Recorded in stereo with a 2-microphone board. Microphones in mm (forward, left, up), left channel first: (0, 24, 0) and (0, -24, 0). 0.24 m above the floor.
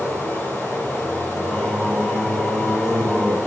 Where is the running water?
50° left (ahead or behind), 3.5 m.